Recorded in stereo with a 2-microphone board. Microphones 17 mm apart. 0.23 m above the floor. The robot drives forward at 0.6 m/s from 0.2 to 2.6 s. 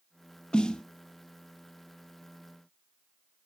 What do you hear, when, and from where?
0.5 s a snare drum: 65° left (ahead or behind), 0.7 m; by 0.8 s 60° left (ahead or behind), 0.7 m